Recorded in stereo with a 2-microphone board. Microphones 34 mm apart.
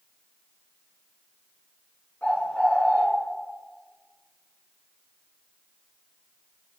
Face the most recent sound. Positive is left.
turn(degrees=45)  # may be behind; listen again after turning